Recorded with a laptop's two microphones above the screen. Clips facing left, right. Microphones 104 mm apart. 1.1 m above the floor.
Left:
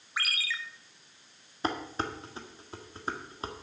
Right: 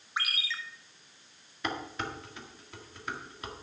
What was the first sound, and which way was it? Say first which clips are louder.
A ringtone: even; 25° right (ahead or behind).